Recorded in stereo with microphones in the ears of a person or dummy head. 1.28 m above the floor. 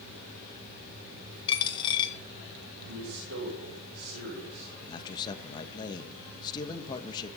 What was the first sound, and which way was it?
A dropped coin, 30° left (ahead or behind).